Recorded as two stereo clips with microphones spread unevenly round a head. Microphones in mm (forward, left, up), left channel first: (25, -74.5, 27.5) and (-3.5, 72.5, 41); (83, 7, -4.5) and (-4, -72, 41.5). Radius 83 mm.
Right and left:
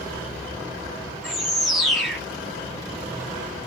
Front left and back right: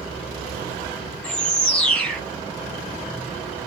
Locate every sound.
1.2 s a bird: 175° left, 0.6 m